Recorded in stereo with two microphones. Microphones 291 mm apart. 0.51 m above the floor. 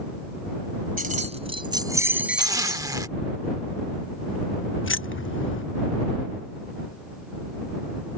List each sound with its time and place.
1.0 s keys jangling: 30° right (ahead or behind); by 2.9 s 5° left (ahead or behind)
2.4 s a zipper: 10° right (ahead or behind)
4.8 s keys jangling: 45° left (ahead or behind)